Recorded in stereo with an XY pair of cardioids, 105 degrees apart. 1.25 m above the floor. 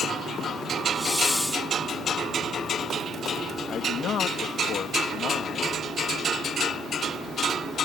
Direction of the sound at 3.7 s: 60° left.